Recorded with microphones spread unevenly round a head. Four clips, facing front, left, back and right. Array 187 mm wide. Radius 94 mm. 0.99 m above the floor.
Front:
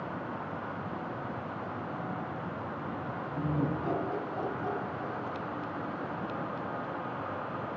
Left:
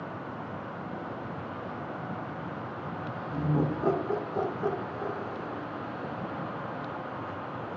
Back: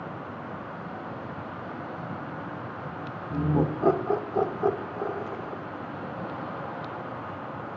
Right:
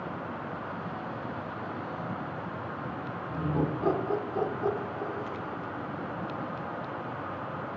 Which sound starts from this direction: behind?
Laughter, at 3.3 s.